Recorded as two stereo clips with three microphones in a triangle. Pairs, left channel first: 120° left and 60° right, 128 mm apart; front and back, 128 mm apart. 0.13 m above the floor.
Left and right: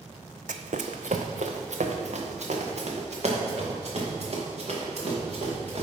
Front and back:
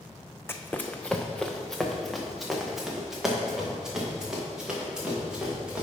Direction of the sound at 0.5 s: 70° right.